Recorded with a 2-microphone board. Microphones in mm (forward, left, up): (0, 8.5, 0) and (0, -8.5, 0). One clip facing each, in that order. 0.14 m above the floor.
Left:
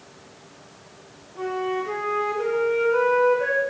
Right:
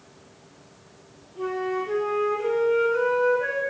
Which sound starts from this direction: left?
A flute, at 1.4 s.